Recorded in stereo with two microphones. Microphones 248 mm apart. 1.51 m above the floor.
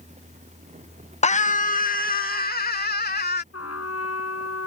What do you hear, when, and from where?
1.2 s a scream: 25° left (ahead or behind); by 3.4 s 40° left (ahead or behind)
3.5 s a trumpet: 70° left (ahead or behind)